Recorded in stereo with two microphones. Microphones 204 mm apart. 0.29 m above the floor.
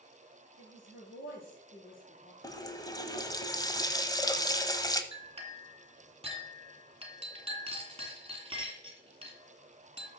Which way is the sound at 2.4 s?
20° left (ahead or behind).